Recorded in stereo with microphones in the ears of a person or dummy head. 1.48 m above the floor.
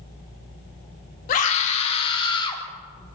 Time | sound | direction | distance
1.3 | a scream | 50° left (ahead or behind) | 3 m